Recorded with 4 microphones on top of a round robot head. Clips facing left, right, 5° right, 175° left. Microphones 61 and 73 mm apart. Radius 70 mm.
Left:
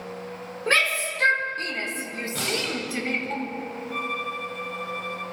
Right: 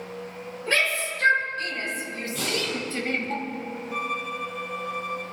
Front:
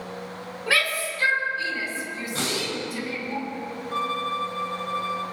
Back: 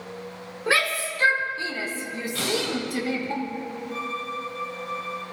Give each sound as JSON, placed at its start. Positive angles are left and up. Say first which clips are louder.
{"t": 0.7, "sound": "a shout", "louder": "left 2 dB, back 1 dB", "azimuth_deg": 115, "distance_m": 4.5}
{"t": 2.4, "sound": "breathing", "louder": "even, back 3 dB", "azimuth_deg": 55, "distance_m": 4.5}
{"t": 3.9, "sound": "a violin", "louder": "even, front 6 dB", "azimuth_deg": -15, "distance_m": 0.8}